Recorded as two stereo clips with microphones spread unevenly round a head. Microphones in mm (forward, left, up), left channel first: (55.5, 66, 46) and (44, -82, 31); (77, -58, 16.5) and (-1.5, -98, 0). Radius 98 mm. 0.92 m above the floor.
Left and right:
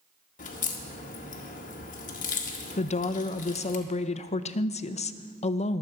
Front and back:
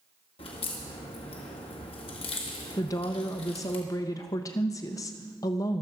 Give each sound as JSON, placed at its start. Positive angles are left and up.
{"t": 0.4, "sound": "a crack", "azimuth_deg": 60, "distance_m": 1.8}
{"t": 2.8, "sound": "a woman speaking", "azimuth_deg": 80, "distance_m": 0.7}